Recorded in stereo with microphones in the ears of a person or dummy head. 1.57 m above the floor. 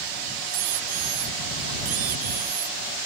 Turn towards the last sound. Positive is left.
turn(degrees=-45)  # may be behind; listen again after turning